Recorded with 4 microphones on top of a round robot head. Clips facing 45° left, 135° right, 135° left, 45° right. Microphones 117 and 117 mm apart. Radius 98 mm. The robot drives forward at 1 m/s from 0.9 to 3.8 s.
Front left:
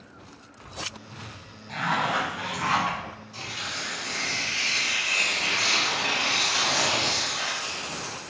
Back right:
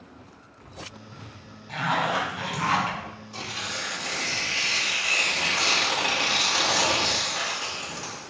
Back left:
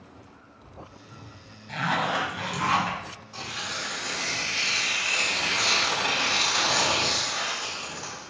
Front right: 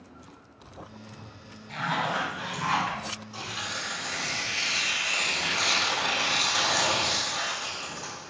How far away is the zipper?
About 0.8 m.